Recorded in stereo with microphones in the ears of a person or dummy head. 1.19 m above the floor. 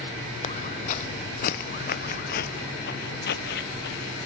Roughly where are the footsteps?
Left.